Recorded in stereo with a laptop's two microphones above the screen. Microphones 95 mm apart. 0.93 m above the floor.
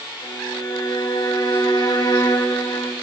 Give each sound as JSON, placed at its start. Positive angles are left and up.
{"t": 0.2, "sound": "a violin", "side_deg": 50, "distance_m": 2.5}